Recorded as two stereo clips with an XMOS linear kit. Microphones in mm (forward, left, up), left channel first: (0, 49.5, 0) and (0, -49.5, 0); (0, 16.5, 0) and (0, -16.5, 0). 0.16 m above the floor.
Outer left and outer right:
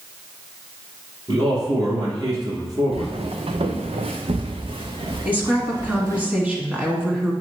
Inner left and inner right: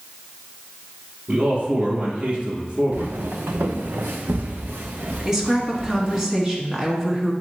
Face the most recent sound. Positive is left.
turn(degrees=-15)  # may be behind; listen again after turning